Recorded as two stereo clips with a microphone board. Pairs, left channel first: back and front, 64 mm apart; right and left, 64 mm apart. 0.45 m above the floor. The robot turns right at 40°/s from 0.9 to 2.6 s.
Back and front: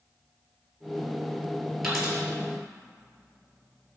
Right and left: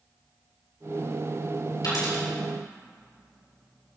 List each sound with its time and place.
1.8 s a dropped coin: 85° right, 5 m; by 2.2 s 70° right, 5 m